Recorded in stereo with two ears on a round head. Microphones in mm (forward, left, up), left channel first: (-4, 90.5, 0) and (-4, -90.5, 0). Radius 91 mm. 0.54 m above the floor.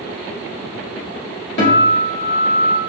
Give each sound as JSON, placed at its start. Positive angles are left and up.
{"t": 1.6, "sound": "a guitar", "side_deg": 55, "distance_m": 1.9}